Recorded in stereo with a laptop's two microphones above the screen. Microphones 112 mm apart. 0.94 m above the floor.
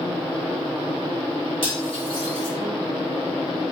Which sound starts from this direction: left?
Cutlery clinking, at 1.6 s.